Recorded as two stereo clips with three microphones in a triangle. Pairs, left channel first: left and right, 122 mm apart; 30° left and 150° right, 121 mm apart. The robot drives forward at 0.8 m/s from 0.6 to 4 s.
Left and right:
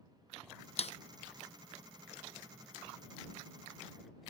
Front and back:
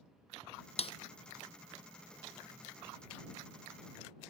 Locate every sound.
0.8 s a snare drum: 60° left; by 0.9 s 70° left